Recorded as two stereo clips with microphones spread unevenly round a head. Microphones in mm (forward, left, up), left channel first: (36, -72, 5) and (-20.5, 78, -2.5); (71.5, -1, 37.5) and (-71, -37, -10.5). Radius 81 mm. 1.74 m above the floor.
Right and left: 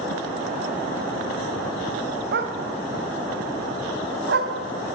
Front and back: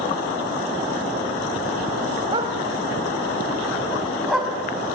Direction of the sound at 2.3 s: 120° left.